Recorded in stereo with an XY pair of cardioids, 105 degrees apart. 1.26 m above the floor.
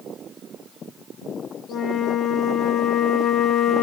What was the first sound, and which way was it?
A flute, 65° left.